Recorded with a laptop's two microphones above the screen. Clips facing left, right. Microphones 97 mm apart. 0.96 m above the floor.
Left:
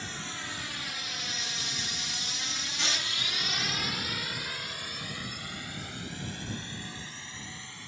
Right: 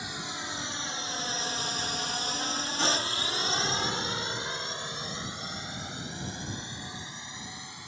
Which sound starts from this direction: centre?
A drone, at 0.0 s.